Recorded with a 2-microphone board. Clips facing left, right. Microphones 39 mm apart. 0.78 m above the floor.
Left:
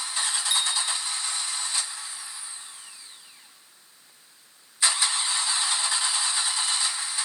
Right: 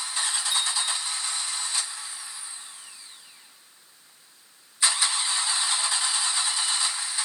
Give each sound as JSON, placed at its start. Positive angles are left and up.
{"t": 0.5, "sound": "a bicycle bell", "side_deg": 80, "distance_m": 9.0}